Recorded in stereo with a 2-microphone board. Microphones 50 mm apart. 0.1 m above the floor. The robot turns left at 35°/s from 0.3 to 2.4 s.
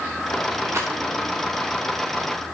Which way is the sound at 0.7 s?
65° right (ahead or behind).